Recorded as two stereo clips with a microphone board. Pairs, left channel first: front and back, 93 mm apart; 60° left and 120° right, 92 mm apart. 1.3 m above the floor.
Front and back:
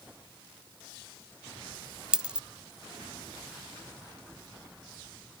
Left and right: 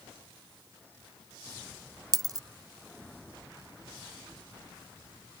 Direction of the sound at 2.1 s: 105° right.